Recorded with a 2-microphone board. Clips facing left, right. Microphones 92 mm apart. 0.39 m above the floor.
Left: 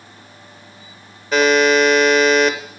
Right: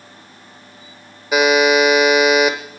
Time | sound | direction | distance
1.3 | a buzzer | 10° right (ahead or behind) | 1.1 m